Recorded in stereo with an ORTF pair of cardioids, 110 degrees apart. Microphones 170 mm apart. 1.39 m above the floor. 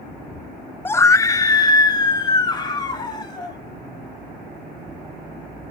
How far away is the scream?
About 0.6 m.